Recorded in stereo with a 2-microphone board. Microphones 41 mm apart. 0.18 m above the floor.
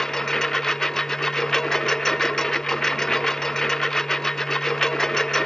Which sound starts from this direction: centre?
A lawn mower, at 0.0 s.